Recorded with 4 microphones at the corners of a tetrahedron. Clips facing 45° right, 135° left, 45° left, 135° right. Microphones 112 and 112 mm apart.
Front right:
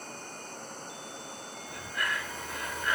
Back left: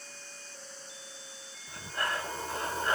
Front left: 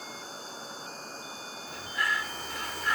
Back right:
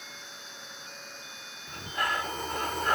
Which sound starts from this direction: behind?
Breathing, at 1.7 s.